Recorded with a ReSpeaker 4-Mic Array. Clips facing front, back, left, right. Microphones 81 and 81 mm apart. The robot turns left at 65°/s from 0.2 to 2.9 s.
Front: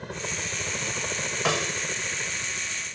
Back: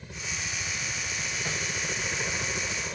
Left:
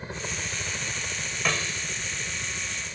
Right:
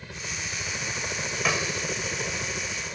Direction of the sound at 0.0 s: 30° left.